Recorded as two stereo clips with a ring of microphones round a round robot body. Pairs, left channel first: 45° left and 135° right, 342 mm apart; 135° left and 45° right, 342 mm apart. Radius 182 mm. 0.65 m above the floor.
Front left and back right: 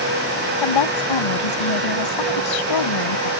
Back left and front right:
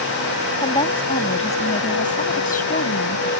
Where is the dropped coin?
I don't hear a dropped coin.